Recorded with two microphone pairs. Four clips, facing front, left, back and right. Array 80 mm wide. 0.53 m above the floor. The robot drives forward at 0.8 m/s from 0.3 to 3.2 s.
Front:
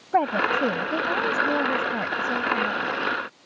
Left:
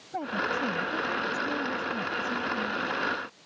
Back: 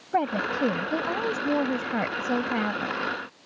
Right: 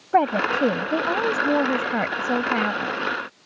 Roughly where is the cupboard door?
I don't hear a cupboard door.